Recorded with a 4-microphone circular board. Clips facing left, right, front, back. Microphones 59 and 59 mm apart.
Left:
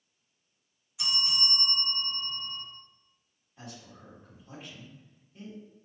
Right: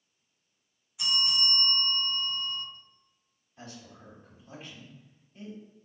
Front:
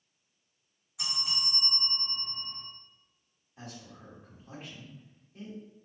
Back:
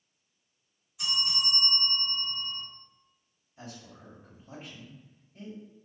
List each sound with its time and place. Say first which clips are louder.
1.0 s a bell: right 3 dB, back 5 dB; straight ahead, 2.0 m
3.6 s a man speaking: even, even; 10° left, 1.8 m